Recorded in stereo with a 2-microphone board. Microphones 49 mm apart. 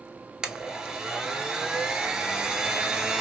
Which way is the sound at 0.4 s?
15° right (ahead or behind).